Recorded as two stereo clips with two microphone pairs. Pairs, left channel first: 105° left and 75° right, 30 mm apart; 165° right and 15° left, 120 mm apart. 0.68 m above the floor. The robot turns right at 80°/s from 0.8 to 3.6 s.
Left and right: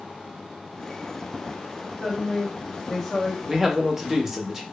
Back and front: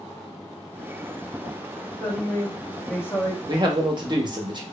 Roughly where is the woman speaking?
Left.